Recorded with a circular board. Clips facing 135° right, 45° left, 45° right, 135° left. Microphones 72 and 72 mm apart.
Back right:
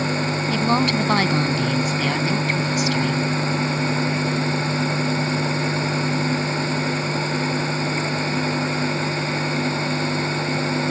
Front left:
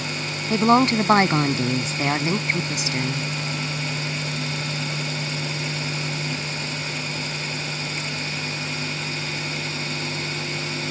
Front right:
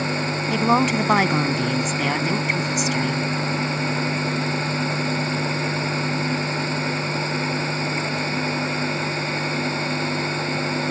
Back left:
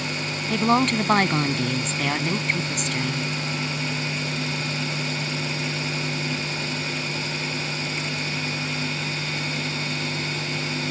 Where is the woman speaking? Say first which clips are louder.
Front left 4 dB, front right 1 dB; 30° left.